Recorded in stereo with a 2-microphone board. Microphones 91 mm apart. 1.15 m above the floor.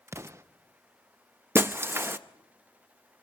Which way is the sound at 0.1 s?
30° right (ahead or behind).